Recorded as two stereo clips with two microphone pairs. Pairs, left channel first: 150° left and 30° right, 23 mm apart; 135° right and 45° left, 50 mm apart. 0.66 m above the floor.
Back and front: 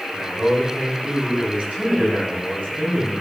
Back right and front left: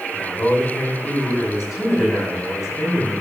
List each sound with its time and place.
0.1 s a man speaking: 45° right, 5 m